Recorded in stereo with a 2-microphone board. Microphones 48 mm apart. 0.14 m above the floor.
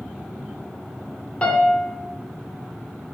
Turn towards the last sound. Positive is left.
turn(degrees=20)  # may be behind; listen again after turning